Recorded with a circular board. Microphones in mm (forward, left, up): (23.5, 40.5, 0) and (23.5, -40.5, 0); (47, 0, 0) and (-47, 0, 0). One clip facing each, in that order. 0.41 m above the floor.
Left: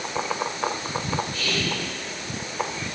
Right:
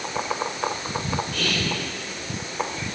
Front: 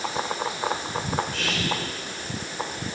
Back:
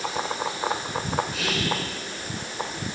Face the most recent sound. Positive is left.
turn(degrees=-95)